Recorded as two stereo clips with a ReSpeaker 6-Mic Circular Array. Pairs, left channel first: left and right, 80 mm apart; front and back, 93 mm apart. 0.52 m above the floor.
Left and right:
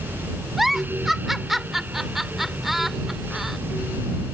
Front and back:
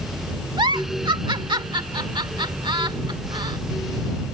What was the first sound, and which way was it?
A giggle, 175° right.